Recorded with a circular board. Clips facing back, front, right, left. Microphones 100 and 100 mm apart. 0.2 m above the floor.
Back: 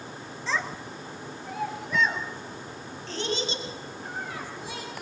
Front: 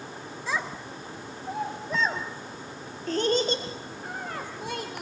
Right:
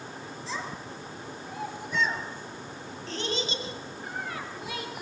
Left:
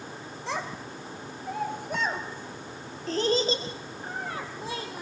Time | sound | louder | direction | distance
0.5 | a child speaking | back 1 dB, left 4 dB | 80° left | 2.5 m